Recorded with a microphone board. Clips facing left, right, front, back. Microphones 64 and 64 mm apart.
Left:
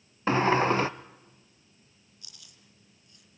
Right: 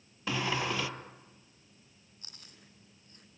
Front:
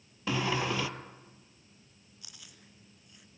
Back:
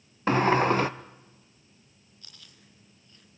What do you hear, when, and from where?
0.3 s a sliding door: 140° left, 0.8 m
2.2 s chewing: 70° right, 1.9 m